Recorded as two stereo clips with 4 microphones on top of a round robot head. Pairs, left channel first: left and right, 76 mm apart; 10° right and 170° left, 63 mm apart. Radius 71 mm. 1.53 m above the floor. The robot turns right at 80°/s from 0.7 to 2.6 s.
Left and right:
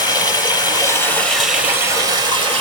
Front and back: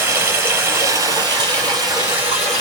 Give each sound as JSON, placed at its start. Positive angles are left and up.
{"t": 0.0, "sound": "running water", "azimuth_deg": 120, "distance_m": 3.5}